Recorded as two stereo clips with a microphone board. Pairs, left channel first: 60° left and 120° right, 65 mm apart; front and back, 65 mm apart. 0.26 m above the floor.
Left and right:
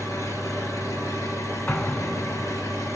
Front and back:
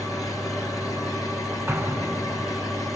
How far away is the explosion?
About 0.6 m.